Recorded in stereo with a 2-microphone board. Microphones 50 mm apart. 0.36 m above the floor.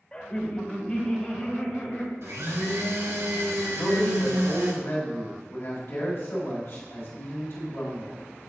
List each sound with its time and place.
0.1 s laughter: 25° left (ahead or behind), 1.0 m
2.2 s a blender: 80° right, 1.4 m
3.7 s a man speaking: 60° left (ahead or behind), 2.0 m